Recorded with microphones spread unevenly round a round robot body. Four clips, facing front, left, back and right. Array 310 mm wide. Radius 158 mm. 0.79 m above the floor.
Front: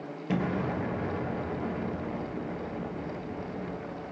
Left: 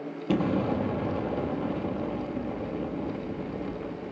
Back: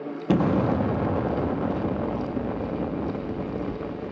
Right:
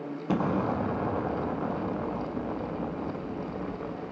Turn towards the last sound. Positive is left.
turn(degrees=155)